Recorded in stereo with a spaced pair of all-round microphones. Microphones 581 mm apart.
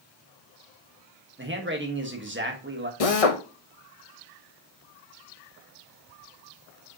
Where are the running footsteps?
I don't hear running footsteps.